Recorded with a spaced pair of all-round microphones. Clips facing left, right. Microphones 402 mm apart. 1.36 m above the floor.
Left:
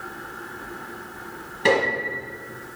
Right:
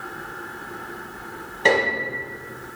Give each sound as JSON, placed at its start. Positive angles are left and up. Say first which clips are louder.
{"t": 1.6, "sound": "a piano", "louder": "even", "side_deg": 25, "distance_m": 4.5}